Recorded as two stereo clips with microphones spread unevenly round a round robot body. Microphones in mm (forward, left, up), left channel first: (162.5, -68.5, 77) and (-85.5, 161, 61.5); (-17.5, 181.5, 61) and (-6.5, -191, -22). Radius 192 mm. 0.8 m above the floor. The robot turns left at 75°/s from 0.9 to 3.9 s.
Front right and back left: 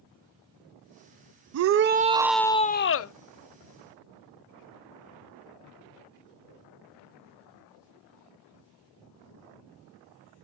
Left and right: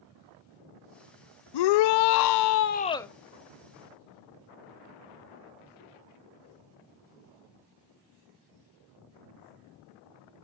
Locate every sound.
1.5 s a shout: 110° left, 0.5 m; by 3.1 s 10° right, 0.5 m